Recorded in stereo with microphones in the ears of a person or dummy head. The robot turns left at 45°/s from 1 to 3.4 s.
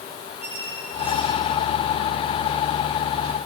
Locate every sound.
0.4 s a squeak: 10° right (ahead or behind), 5.5 m; by 1.4 s 5° left (ahead or behind), 5.5 m